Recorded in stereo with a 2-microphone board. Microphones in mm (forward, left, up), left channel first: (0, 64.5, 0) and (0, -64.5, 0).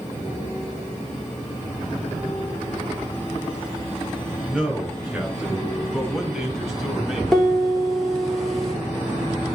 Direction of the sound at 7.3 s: 5° left (ahead or behind).